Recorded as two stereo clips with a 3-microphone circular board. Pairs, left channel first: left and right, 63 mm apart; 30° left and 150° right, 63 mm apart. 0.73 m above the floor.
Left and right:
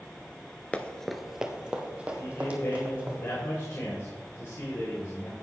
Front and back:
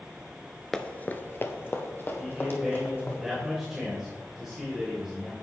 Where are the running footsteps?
90° left, 0.7 m; by 3.2 s 25° right, 3 m.